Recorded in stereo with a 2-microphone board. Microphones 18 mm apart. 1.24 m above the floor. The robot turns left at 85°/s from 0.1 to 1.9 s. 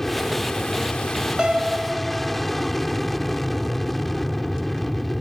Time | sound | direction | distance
0.0 | an aircraft | 160° left | ?
1.4 | a piano | 110° right | ?